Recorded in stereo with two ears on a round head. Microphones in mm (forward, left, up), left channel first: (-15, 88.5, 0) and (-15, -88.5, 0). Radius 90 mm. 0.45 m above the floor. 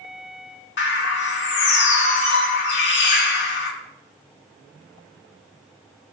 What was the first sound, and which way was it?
A bird, 65° left (ahead or behind).